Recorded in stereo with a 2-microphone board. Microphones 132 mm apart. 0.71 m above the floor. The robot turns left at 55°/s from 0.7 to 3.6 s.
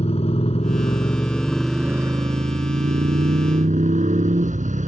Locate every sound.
0.0 s a motorcycle: 50° left; by 4.9 s 110° right